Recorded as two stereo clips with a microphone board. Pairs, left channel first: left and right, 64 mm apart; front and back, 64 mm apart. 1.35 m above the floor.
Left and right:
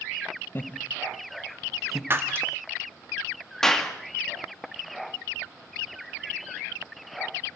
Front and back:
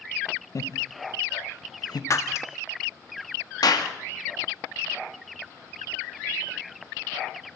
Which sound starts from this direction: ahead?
A clap, at 3.6 s.